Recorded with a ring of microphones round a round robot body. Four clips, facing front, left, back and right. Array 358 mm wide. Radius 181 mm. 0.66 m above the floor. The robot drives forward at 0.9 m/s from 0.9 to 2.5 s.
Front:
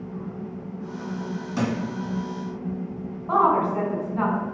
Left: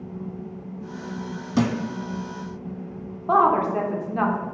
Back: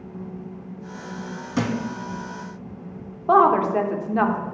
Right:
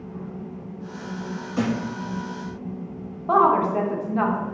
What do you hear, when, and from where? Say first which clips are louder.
1.6 s a thud: left 2 dB, back 2 dB; 105° left, 0.9 m; by 1.8 s 120° left, 1.0 m
3.3 s a woman speaking: right 1 dB, back 4 dB; straight behind, 1.5 m